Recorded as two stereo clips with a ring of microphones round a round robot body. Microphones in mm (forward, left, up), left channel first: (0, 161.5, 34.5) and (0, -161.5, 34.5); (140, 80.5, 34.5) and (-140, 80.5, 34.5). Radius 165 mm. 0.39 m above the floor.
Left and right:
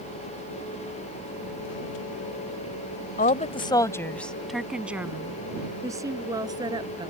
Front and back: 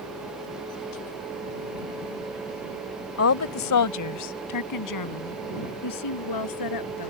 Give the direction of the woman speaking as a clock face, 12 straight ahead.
11 o'clock.